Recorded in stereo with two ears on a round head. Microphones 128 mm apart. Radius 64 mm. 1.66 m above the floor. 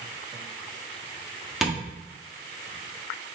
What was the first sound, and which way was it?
Tapping, centre (ahead or behind).